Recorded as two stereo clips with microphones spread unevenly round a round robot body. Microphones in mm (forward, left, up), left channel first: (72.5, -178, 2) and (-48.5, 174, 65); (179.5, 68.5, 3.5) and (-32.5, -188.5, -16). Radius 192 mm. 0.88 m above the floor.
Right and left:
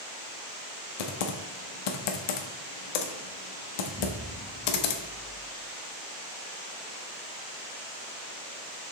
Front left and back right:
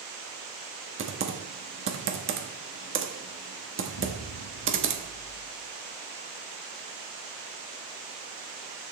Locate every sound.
1.0 s typing on a keyboard: 75° right, 1.0 m
3.9 s an explosion: 35° left, 1.0 m